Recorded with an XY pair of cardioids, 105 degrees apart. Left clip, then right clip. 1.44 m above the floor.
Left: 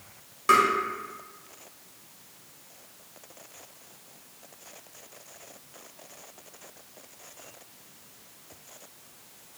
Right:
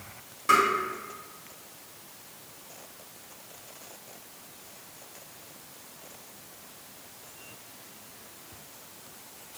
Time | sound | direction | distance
0.5 | tapping | 20° left | 1.8 m